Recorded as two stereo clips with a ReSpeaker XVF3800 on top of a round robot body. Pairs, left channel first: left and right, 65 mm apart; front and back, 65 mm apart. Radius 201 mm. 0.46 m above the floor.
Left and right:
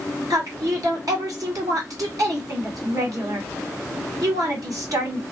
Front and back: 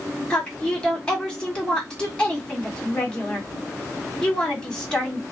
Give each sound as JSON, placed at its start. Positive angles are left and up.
{"t": 0.3, "sound": "a woman speaking", "azimuth_deg": -75, "distance_m": 1.9}